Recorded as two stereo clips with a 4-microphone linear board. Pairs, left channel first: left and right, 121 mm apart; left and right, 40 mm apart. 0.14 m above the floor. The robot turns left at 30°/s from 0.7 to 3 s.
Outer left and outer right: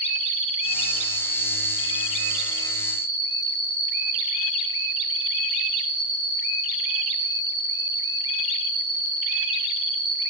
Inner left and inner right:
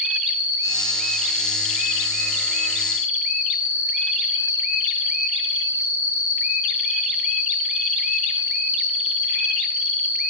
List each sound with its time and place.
0.0 s an insect: 65° right, 0.8 m; by 10.3 s 135° right, 0.8 m